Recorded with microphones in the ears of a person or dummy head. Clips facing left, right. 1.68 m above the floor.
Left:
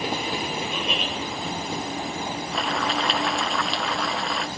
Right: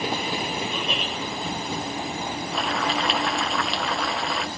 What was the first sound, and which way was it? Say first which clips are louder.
Laughter: even; 5° left (ahead or behind).